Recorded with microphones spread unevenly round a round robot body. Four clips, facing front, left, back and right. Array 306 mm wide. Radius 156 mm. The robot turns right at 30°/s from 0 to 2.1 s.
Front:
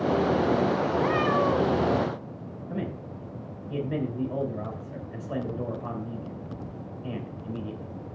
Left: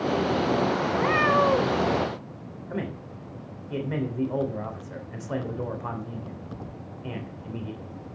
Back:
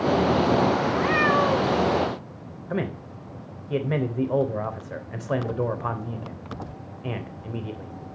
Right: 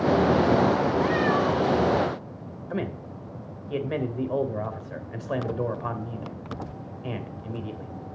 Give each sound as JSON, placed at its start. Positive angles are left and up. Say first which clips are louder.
{"t": 0.9, "sound": "a cat meowing", "louder": "left 1 dB, back 2 dB", "azimuth_deg": 70, "distance_m": 2.0}
{"t": 2.7, "sound": "a man speaking", "louder": "right 2 dB, back 5 dB", "azimuth_deg": -165, "distance_m": 3.0}